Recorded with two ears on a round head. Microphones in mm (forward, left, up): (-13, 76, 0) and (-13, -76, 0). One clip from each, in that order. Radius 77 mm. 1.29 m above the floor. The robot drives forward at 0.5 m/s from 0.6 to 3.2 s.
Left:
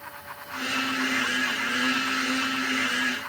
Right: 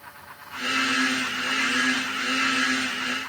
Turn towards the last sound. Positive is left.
No sound to turn to.